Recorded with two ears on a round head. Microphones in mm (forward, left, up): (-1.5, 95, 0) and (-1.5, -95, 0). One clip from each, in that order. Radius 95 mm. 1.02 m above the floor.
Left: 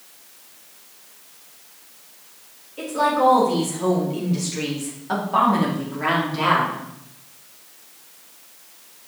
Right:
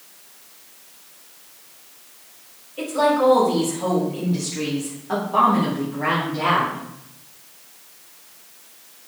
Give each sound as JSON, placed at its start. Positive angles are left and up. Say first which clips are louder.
{"t": 2.8, "sound": "a woman speaking", "louder": "right 1 dB", "side_deg": -10, "distance_m": 2.5}